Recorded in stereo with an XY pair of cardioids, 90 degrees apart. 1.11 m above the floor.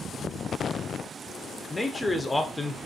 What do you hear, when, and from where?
1.7 s a man speaking: 15° left, 0.6 m